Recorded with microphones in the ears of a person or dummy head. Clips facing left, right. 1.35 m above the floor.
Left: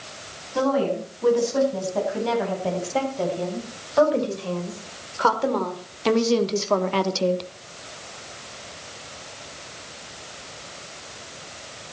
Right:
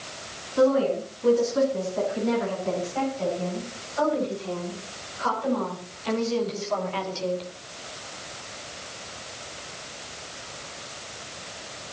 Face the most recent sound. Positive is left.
turn(degrees=65)  # may be behind; listen again after turning